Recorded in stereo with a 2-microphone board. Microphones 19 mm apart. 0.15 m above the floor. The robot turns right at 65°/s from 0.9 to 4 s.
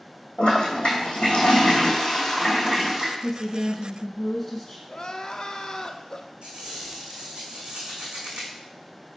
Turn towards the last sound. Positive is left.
turn(degrees=-70)  # may be behind; listen again after turning